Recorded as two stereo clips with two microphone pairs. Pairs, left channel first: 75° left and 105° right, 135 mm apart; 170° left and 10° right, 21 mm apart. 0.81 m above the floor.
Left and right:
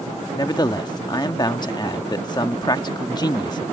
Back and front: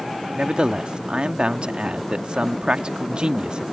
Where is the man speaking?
15° left.